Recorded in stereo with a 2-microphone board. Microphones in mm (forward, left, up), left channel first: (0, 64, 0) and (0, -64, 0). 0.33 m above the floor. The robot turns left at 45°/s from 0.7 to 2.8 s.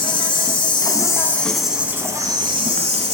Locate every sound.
0.0 s an insect: 40° left, 0.9 m; by 3.1 s 55° right, 0.9 m